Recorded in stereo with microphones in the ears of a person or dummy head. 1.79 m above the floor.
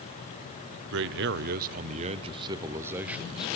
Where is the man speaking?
70° right (ahead or behind), 1.1 m; by 3.6 s centre (ahead or behind), 1.3 m.